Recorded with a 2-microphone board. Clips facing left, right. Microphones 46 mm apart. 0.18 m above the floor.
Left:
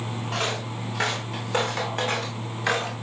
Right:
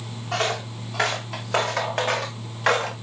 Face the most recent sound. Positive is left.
turn(degrees=-75)  # may be behind; listen again after turning